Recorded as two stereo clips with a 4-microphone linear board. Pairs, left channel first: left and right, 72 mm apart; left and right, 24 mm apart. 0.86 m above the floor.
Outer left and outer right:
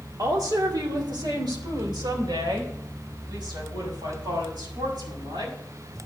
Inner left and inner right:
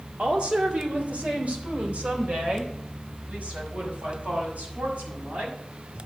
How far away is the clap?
I don't hear a clap.